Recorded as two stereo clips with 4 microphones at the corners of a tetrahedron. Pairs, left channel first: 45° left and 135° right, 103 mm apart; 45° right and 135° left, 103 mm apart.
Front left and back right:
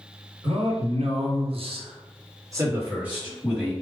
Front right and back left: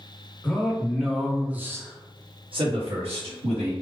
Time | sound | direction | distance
0.4 | a man speaking | 120° right | 1.2 m